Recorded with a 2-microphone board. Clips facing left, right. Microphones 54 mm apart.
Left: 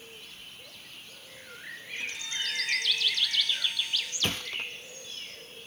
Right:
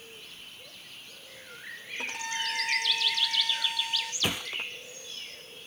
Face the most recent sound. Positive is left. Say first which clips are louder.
# right 1 dB
turn(degrees=-10)  # may be behind; listen again after turning